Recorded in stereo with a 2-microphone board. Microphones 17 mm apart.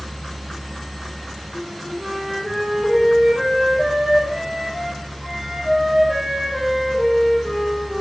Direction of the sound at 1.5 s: 15° right (ahead or behind).